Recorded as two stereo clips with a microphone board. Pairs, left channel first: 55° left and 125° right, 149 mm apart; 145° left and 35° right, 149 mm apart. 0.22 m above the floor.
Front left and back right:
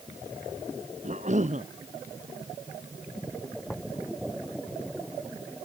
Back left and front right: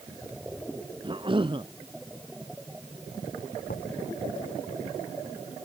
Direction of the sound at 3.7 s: 145° left.